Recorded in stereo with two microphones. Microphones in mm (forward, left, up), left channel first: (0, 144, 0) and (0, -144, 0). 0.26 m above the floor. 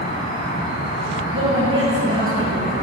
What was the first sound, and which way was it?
An insect, 30° left (ahead or behind).